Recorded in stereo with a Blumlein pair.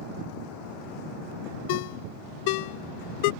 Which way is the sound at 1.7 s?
45° left.